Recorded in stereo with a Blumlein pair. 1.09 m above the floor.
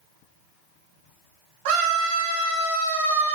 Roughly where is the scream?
Ahead right.